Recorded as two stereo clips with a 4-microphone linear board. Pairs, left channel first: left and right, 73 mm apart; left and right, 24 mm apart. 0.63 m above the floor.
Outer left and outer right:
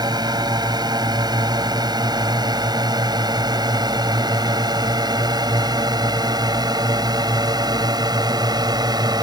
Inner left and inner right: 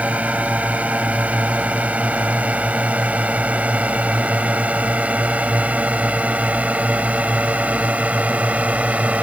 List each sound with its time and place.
0.0 s a drone: 65° right (ahead or behind)